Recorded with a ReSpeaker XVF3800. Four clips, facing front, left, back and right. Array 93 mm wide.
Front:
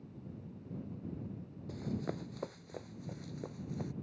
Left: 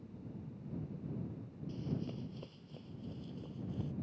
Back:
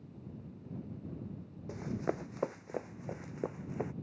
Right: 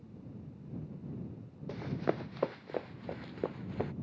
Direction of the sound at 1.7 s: 110° right.